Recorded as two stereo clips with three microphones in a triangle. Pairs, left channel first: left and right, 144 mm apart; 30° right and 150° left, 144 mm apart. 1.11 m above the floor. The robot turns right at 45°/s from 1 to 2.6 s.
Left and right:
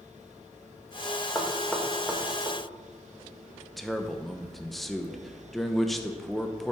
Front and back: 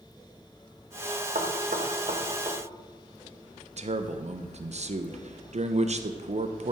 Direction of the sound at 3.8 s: Straight behind.